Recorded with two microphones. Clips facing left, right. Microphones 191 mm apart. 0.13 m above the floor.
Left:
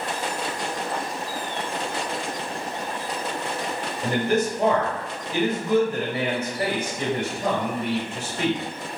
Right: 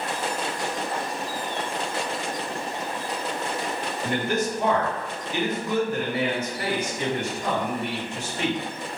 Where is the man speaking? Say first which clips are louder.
Left 4 dB; 35° left (ahead or behind), 1.9 m.